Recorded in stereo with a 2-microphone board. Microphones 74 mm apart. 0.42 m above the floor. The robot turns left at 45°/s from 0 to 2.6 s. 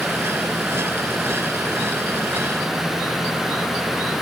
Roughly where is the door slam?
No door slam in this recording.